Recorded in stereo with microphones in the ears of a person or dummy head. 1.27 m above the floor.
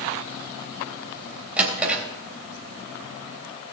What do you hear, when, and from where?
1.6 s a drawer: 5° right (ahead or behind), 3 m